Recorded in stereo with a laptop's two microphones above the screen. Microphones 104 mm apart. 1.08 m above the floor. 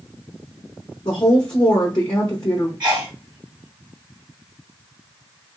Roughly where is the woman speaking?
Left.